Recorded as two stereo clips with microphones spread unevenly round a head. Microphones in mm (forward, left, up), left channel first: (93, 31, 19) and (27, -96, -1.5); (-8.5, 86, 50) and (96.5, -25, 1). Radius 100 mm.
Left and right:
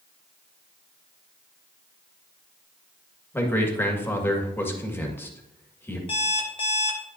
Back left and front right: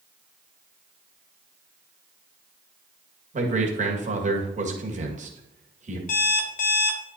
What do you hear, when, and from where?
3.3 s a man speaking: 15° right, 1.9 m
6.1 s an alarm clock: 120° left, 1.0 m